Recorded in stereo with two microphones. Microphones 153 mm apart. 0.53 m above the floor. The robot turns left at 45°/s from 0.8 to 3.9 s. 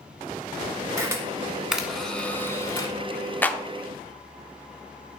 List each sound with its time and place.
1.0 s a camera shutter: 20° right (ahead or behind), 1.2 m; by 2.9 s 25° left (ahead or behind), 1.2 m
3.4 s a clap: 10° left (ahead or behind), 0.6 m; by 3.6 s 5° left (ahead or behind), 0.6 m